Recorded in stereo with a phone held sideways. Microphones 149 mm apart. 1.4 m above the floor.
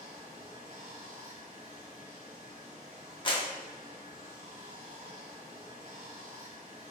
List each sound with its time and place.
0.0 s running water: 45° right (ahead or behind), 1.0 m
3.2 s a clap: 35° left (ahead or behind), 0.6 m